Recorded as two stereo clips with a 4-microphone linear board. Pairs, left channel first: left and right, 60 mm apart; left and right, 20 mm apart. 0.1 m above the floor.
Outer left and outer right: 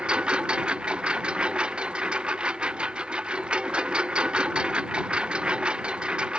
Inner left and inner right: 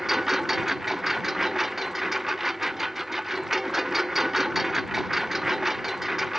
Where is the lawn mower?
15° right (ahead or behind).